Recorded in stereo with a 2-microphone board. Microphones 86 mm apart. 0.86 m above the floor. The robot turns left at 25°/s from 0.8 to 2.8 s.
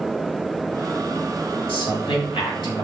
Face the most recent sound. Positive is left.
turn(degrees=50)  # may be behind; listen again after turning